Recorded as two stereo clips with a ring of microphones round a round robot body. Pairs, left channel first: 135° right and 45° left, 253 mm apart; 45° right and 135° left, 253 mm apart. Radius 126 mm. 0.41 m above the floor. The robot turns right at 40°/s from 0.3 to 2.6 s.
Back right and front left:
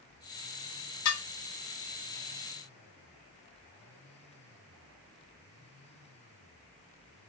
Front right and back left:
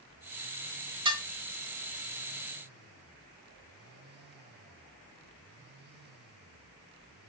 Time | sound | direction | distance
1.1 | dishes clattering | 155° right | 1.0 m